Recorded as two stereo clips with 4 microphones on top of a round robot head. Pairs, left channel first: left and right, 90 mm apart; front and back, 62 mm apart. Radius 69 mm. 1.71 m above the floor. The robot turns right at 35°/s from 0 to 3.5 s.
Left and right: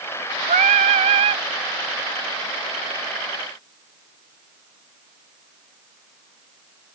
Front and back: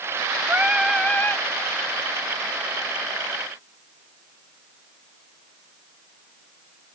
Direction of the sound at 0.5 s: 105° right.